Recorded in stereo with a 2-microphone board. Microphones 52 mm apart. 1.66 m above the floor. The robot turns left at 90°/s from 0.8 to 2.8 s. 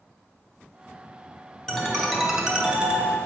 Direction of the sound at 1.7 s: 10° left (ahead or behind).